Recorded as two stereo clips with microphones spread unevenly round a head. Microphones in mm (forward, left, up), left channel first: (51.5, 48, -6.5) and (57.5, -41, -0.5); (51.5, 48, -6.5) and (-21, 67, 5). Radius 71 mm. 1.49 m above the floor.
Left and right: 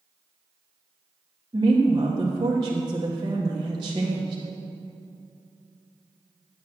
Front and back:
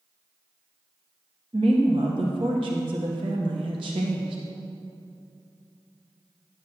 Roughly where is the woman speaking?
Behind right.